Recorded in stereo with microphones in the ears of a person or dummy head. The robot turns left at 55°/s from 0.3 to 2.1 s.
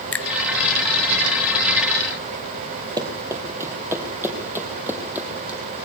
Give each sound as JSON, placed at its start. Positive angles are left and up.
{"t": 0.1, "sound": "a finger snap", "side_deg": 10, "distance_m": 0.7}
{"t": 3.0, "sound": "running footsteps", "side_deg": -20, "distance_m": 2.5}